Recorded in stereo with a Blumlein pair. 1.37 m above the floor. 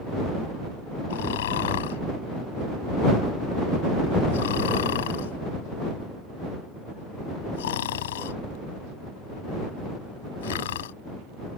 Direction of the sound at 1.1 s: 60° left.